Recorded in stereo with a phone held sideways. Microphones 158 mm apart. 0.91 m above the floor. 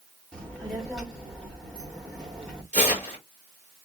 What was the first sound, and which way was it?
A child speaking, 5° left (ahead or behind).